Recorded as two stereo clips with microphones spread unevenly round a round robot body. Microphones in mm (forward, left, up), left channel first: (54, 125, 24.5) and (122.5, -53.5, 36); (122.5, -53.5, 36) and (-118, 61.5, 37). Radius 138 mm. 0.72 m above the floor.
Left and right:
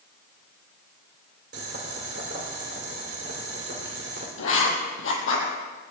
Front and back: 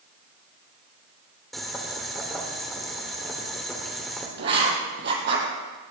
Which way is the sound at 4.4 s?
100° left.